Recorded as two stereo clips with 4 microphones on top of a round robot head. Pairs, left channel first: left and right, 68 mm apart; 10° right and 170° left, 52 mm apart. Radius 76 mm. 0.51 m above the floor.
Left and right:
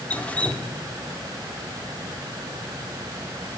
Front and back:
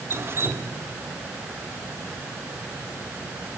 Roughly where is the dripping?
Behind left.